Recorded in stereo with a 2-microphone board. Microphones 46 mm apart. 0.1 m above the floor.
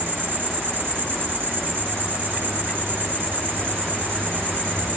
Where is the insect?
45° right (ahead or behind), 3.5 m.